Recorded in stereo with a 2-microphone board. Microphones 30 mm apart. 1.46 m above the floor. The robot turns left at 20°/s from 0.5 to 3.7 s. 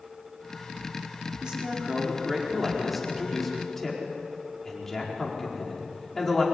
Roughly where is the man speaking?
Right.